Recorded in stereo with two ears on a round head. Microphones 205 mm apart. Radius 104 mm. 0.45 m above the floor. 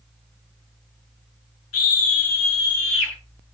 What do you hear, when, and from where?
1.7 s a scream: 65° left (ahead or behind), 8.5 m; by 3.1 s 60° left (ahead or behind), 8.5 m